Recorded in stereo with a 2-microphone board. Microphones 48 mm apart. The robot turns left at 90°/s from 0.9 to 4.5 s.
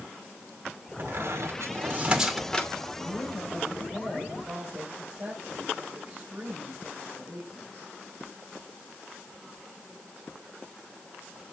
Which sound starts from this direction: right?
A squeak, at 1.0 s.